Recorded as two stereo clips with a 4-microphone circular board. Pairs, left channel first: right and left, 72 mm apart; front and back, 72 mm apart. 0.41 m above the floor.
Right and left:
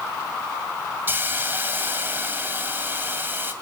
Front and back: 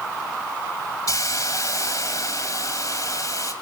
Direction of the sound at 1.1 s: 30° left.